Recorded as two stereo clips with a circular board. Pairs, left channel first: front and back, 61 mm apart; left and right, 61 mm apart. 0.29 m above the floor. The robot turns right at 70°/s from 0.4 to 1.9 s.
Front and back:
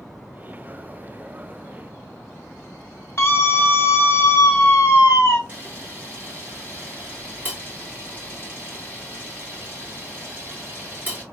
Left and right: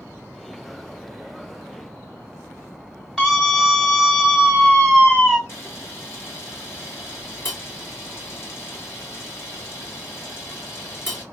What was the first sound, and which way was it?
A scream, straight ahead.